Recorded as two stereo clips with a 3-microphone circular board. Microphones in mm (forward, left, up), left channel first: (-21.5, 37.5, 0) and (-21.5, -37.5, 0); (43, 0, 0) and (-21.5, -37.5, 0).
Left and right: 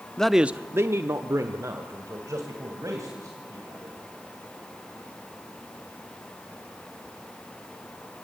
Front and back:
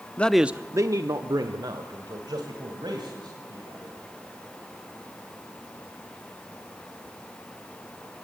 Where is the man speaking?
30° left, 0.6 m; by 3.9 s 135° right, 4.5 m.